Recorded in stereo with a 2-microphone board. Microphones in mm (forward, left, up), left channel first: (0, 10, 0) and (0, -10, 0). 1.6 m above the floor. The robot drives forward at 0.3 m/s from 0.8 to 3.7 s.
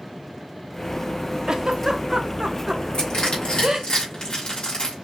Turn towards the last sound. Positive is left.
turn(degrees=55)  # may be behind; listen again after turning